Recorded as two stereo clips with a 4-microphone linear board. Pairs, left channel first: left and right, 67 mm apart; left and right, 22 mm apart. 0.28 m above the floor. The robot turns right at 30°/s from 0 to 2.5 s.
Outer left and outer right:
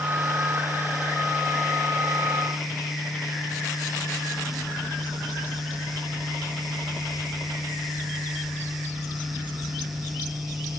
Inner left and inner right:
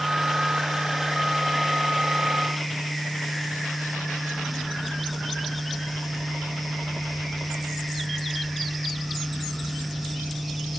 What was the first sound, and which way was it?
Only background noise.